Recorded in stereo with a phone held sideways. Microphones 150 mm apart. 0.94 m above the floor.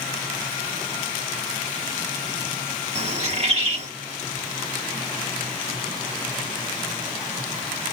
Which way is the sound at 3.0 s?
40° right (ahead or behind).